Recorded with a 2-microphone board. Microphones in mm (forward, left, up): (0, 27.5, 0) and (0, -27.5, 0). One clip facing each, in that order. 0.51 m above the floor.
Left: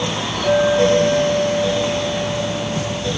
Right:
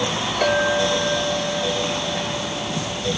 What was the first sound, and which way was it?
A clink, 85° right.